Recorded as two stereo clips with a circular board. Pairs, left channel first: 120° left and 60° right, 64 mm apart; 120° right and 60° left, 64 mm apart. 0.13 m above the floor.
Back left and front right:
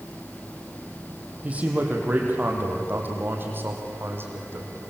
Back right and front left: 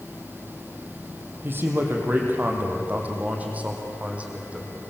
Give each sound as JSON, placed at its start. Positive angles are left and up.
{"t": 1.4, "sound": "a man speaking", "azimuth_deg": 5, "distance_m": 4.5}